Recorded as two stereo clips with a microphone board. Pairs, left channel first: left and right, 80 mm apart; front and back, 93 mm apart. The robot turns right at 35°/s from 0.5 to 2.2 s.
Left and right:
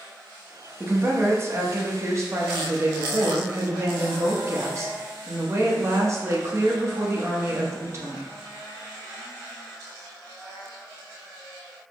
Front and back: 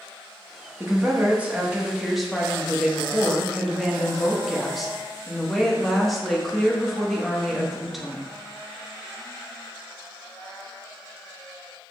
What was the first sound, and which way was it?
A woman speaking, 140° right.